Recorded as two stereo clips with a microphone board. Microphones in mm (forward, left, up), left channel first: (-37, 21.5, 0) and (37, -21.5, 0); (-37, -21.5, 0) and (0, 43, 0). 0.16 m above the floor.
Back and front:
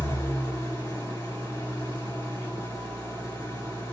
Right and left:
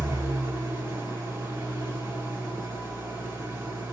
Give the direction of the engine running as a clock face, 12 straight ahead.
8 o'clock.